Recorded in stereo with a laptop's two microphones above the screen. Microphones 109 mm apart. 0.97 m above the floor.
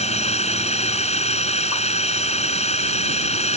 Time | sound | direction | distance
0.0 | a drone | 85° left | ?